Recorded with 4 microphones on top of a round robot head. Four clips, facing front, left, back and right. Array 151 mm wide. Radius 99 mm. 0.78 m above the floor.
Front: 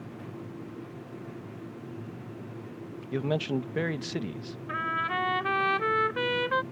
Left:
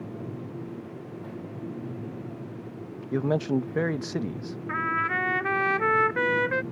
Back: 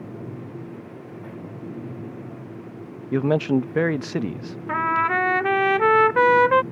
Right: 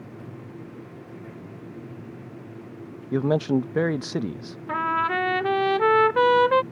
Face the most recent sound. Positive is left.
turn(degrees=-150)